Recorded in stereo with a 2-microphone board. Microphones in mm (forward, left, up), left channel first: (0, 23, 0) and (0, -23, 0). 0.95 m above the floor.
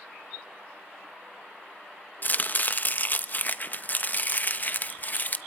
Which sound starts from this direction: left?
Chopping, at 2.2 s.